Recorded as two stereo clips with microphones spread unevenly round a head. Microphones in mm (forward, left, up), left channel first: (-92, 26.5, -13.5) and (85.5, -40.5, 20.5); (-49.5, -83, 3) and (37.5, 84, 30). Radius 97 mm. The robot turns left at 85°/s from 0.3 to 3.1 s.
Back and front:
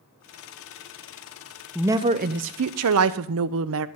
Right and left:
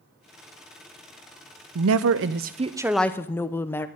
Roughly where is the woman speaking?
Left.